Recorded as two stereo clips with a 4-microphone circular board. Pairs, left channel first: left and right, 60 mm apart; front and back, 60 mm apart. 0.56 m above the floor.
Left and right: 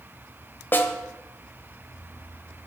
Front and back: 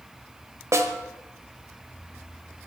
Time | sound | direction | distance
0.7 | a snare drum | 145° left | 1.4 m